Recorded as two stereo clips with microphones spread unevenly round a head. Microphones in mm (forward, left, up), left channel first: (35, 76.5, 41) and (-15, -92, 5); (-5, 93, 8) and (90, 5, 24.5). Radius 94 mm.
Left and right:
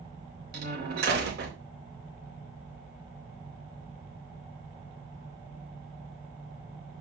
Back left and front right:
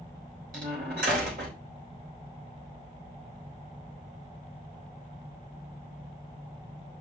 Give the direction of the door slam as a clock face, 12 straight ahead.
3 o'clock.